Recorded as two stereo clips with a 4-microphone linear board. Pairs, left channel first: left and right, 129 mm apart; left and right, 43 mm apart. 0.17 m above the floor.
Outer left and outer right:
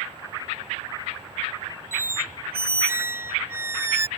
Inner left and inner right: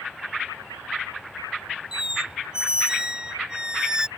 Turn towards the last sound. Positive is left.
turn(degrees=-20)  # may be behind; listen again after turning